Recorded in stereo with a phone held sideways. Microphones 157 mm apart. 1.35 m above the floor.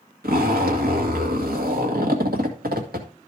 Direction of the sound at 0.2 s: 85° right.